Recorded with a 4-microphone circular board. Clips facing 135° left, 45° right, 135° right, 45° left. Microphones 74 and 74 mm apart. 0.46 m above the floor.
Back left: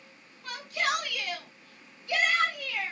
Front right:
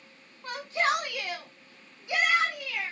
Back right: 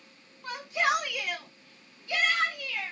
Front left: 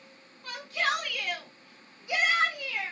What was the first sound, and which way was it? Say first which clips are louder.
A shout: front right 3 dB, back right 2 dB; 85° right.